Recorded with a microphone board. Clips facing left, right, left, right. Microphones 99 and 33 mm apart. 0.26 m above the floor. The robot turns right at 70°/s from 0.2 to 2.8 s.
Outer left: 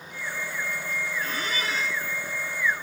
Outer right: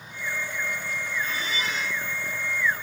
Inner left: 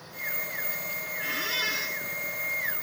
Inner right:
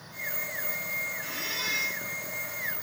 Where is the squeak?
95° left, 1.8 m; by 2.0 s 150° left, 1.8 m.